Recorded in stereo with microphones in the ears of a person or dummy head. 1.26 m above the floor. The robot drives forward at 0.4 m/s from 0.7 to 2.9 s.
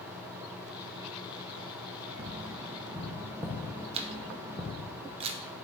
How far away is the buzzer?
I don't hear a buzzer.